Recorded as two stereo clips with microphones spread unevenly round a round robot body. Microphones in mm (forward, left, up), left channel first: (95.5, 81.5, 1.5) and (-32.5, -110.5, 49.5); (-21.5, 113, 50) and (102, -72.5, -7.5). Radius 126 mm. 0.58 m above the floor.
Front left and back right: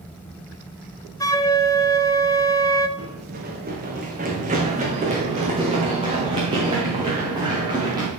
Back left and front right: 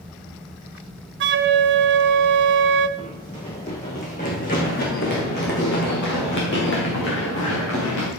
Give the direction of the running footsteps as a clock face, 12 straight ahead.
6 o'clock.